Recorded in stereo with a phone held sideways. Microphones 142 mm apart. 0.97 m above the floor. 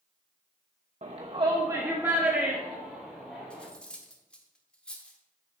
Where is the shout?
50° right (ahead or behind), 0.9 m; by 3.6 s 5° left (ahead or behind), 3 m.